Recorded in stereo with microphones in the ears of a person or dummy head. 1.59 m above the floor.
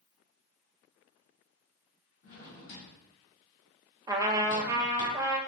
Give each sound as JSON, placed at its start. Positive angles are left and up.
{"t": 2.2, "sound": "a drawer", "side_deg": 55, "distance_m": 1.9}
{"t": 4.1, "sound": "a trumpet", "side_deg": -15, "distance_m": 0.7}